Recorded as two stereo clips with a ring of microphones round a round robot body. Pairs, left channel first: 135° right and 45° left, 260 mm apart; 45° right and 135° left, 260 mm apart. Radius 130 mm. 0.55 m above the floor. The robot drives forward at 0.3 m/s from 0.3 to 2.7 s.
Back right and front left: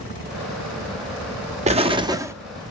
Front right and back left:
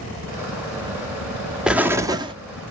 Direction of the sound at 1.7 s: 50° left.